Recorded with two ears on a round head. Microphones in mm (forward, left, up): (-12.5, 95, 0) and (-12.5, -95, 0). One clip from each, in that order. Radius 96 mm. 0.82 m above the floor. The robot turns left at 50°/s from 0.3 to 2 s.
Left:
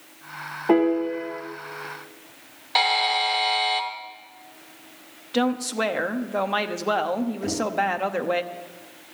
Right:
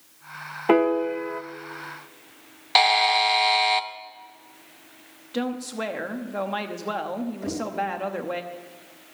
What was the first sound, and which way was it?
A piano, 75° right.